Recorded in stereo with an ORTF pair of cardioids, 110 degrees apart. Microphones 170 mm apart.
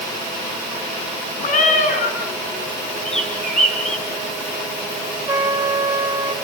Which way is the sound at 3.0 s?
5° left.